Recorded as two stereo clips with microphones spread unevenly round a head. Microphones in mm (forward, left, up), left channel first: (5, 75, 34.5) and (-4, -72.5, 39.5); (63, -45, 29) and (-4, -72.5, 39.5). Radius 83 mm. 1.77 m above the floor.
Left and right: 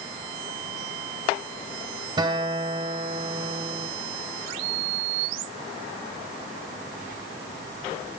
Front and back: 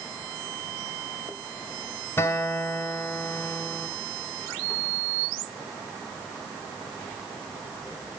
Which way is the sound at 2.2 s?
30° right.